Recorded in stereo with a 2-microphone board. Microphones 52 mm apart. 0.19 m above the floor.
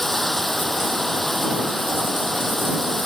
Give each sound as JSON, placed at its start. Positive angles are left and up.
{"t": 0.0, "sound": "running water", "side_deg": 5}